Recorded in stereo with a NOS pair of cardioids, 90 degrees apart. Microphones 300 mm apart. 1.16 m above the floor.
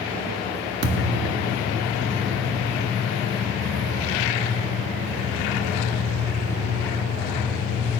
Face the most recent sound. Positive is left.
turn(degrees=-55)